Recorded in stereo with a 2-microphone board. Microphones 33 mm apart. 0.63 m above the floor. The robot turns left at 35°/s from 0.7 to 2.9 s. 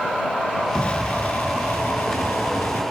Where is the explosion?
150° left; by 2.8 s 75° left.